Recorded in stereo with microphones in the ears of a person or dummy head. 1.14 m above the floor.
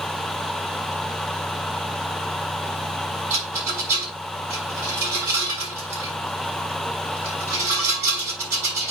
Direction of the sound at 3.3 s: 15° right (ahead or behind).